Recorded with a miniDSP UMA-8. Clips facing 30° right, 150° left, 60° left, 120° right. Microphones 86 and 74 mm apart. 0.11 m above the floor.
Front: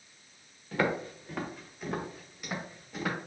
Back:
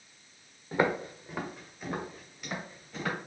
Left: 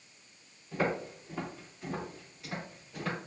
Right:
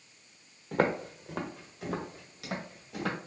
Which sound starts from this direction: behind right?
Footsteps, at 0.7 s.